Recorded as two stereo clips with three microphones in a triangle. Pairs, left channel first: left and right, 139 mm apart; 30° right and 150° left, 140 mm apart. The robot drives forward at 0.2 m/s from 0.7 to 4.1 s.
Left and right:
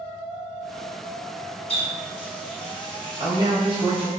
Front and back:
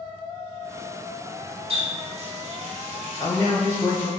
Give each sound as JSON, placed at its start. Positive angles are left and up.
{"t": 1.7, "sound": "a running tap", "azimuth_deg": 120, "distance_m": 0.7}
{"t": 3.2, "sound": "a man speaking", "azimuth_deg": -80, "distance_m": 1.0}